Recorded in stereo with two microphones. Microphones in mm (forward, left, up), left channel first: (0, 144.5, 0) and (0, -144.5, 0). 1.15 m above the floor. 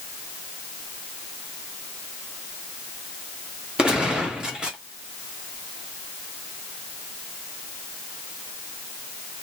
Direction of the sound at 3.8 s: Centre (ahead or behind).